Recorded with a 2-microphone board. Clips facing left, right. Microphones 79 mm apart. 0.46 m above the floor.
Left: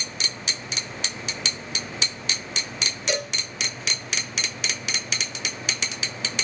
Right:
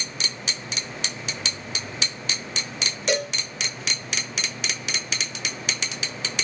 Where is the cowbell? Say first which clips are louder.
Right 4 dB; 55° right (ahead or behind), 1.4 m.